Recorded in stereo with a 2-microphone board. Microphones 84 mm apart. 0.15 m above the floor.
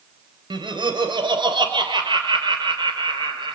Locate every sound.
0.5 s laughter: 65° right (ahead or behind), 3 m